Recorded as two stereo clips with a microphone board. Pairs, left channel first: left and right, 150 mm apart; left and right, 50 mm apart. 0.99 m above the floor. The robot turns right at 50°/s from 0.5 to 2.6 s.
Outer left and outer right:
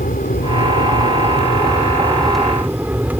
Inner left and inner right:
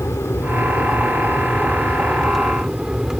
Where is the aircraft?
85° left; by 3.2 s 170° right.